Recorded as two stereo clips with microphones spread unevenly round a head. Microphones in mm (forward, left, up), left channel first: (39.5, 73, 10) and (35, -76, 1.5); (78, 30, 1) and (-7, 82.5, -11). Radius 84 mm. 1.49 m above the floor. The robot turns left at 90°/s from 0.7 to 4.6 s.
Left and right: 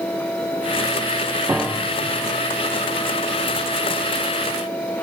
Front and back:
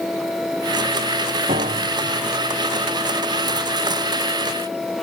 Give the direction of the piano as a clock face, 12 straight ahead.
6 o'clock.